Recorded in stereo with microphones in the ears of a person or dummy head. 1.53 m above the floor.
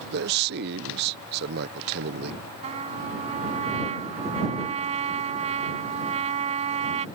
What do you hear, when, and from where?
0.1 s a man speaking: 60° right (ahead or behind)
2.6 s a trumpet: 40° right (ahead or behind)